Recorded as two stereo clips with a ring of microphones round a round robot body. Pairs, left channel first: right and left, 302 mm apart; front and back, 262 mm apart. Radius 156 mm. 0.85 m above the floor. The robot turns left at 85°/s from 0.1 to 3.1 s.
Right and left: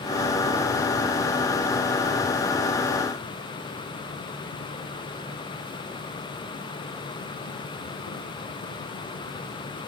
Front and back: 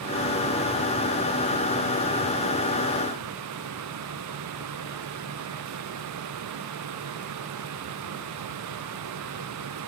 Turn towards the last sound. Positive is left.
No sound to turn to.